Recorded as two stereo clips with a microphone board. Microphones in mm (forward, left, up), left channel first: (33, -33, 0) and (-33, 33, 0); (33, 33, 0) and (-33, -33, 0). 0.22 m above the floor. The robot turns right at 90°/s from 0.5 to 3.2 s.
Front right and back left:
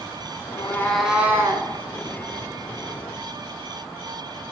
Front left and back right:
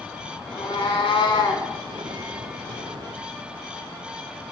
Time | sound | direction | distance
0.5 | a cat meowing | straight ahead | 0.7 m